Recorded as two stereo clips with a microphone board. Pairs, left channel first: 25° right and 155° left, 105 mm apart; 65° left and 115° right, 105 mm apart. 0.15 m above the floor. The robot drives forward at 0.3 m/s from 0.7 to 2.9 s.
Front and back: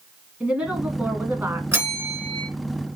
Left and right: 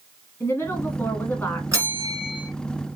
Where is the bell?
150° right, 1.8 m; by 2.5 s 155° right, 2.0 m.